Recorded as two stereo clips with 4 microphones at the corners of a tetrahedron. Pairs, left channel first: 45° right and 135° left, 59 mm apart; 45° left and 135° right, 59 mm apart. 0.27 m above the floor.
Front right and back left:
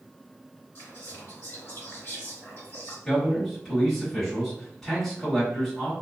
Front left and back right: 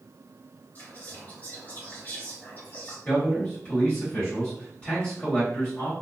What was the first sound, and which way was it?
Whispering, 10° right.